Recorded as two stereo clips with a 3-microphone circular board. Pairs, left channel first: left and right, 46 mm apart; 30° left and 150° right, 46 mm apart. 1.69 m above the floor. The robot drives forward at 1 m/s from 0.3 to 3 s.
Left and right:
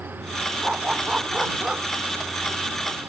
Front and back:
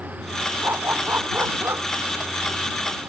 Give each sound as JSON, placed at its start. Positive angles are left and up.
{"t": 0.6, "sound": "a dog barking", "azimuth_deg": -150}